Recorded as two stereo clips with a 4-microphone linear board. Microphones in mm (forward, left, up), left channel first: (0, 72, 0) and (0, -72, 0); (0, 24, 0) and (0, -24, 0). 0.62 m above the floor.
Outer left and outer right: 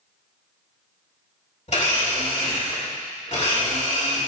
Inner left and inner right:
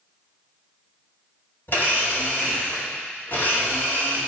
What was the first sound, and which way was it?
A blender, 55° left (ahead or behind).